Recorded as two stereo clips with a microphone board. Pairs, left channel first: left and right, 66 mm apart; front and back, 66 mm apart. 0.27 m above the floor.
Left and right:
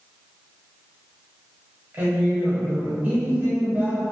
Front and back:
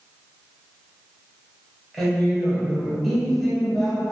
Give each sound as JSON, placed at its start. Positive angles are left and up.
{"t": 1.9, "sound": "a woman speaking", "azimuth_deg": -85, "distance_m": 1.2}